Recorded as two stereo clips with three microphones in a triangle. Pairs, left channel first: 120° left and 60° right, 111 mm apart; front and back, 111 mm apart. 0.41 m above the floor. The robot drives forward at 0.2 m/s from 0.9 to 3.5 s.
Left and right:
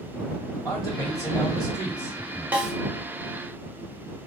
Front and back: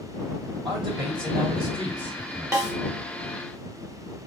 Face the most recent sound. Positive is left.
turn(degrees=-140)